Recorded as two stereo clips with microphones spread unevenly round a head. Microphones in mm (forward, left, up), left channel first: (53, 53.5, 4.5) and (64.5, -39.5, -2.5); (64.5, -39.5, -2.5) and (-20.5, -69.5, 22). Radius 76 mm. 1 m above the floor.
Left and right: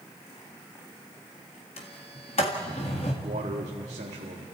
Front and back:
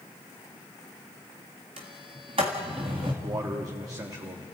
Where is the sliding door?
145° left, 1.7 m.